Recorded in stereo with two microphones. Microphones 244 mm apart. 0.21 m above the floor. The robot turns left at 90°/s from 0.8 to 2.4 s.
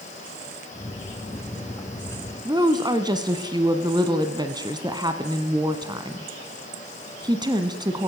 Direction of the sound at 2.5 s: 15° right (ahead or behind).